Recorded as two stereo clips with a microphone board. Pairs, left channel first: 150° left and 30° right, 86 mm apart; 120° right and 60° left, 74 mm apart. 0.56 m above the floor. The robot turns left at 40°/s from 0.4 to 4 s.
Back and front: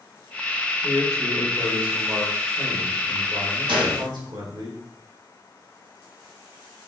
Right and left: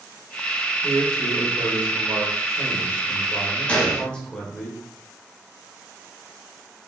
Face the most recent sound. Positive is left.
turn(degrees=-55)